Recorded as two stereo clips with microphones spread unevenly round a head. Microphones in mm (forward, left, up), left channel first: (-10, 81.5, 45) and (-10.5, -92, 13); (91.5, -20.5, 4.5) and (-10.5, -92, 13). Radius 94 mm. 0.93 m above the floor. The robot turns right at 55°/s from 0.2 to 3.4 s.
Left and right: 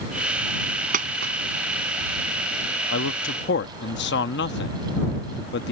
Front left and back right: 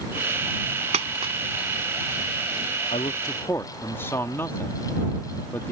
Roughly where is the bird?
No bird in this recording.